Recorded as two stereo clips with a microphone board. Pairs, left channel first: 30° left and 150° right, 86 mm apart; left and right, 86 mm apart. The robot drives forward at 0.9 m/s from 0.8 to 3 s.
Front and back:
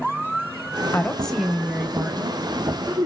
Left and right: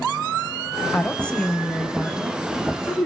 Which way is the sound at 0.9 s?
30° left.